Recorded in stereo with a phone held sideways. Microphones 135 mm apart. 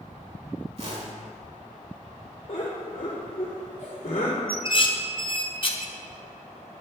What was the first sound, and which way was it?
A whoosh, 50° right (ahead or behind).